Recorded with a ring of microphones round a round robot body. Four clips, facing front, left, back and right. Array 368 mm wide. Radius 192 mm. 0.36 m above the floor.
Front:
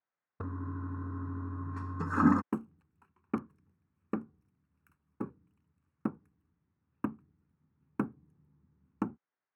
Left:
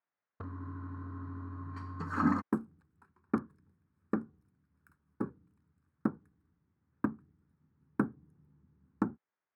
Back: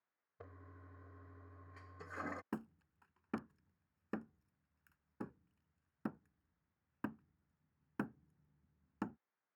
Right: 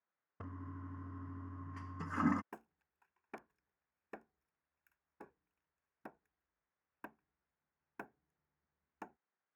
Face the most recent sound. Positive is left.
turn(degrees=60)